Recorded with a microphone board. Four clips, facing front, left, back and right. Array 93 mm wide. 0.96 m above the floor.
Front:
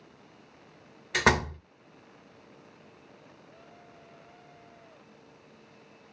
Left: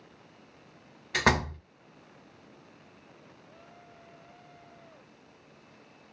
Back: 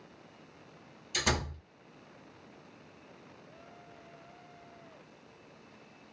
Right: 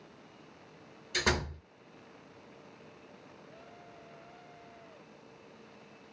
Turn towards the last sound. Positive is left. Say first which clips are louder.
# left 6 dB, front 8 dB
turn(degrees=35)